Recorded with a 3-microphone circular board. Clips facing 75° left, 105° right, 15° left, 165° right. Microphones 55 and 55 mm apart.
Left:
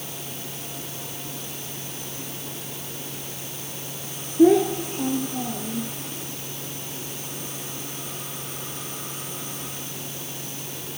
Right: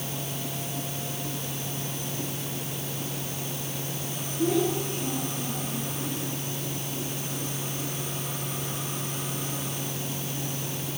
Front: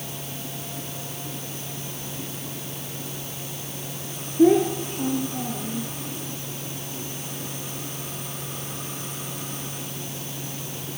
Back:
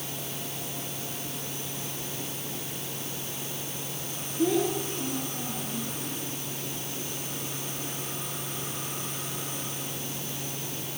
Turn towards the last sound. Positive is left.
turn(degrees=70)